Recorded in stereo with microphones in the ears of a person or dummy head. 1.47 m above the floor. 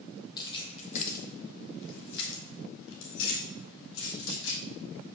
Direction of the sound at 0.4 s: 20° left (ahead or behind).